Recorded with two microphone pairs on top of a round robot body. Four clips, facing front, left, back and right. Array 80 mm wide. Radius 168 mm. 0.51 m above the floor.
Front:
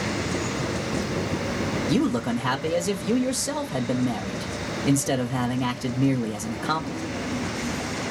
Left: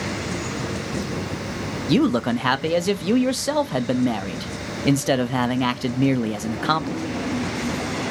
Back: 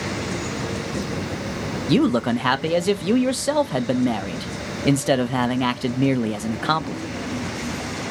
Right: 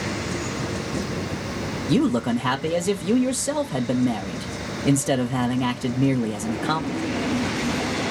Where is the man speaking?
155° left, 0.6 m.